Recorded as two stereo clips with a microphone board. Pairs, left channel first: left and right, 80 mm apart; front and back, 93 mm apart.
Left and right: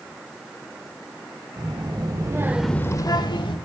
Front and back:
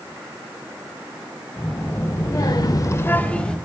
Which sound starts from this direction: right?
A child speaking, at 1.6 s.